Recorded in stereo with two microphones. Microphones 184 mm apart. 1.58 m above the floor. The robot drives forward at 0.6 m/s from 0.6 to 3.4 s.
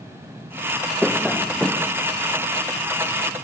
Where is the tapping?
5° left (ahead or behind), 0.5 m; by 1.9 s centre (ahead or behind), 1.1 m.